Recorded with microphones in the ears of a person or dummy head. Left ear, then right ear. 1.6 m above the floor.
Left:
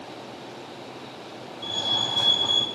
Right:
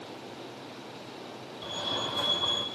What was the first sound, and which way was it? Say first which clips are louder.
A fire alarm: left 7 dB; 35° right (ahead or behind).